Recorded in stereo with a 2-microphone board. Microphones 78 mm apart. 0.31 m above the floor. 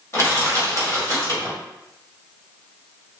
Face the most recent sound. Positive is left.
turn(degrees=35)  # may be behind; listen again after turning